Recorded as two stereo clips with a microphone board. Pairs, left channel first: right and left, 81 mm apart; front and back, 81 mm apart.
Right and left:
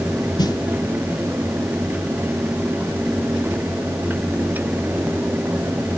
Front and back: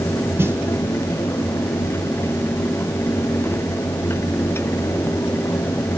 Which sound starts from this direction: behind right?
A snare drum, at 0.4 s.